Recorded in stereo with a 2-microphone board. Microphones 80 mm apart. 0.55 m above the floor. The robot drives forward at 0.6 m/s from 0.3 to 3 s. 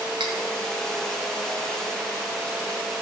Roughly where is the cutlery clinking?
Right.